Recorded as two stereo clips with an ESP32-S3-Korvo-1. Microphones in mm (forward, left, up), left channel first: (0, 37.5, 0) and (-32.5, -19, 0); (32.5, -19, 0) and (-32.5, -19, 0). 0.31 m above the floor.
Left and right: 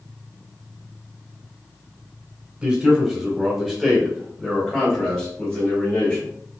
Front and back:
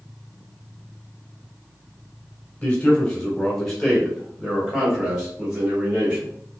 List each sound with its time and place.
2.6 s a man speaking: 65° right, 1.5 m; by 6.3 s 125° left, 1.7 m